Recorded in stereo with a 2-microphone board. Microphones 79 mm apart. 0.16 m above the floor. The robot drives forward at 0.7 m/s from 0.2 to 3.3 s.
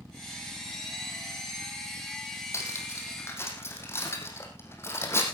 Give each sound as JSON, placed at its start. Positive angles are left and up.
{"t": 2.5, "sound": "cutlery clinking", "side_deg": 35, "distance_m": 3.5}